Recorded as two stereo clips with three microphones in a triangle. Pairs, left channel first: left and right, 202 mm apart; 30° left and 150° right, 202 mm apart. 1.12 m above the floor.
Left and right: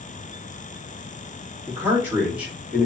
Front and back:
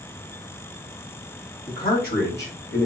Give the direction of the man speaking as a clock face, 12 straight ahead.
1 o'clock.